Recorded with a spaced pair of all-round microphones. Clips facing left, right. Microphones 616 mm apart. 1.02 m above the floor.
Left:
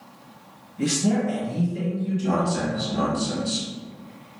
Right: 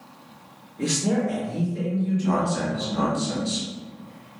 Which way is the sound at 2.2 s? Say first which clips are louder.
Even; 10° left (ahead or behind).